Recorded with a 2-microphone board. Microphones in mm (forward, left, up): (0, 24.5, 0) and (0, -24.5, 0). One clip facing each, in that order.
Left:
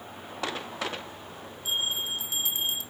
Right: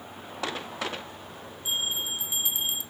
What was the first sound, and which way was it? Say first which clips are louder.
A bell: even; 20° right (ahead or behind).